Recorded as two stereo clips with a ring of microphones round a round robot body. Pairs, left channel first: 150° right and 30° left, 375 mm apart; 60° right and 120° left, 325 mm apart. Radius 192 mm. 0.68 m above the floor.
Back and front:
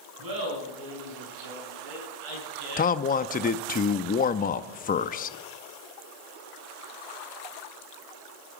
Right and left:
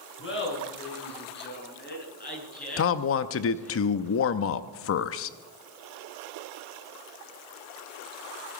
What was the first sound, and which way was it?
Laughter, 10° right.